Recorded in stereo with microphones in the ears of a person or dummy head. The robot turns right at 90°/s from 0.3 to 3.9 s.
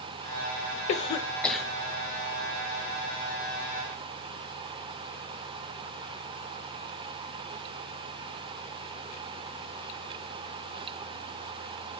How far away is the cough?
About 0.8 m.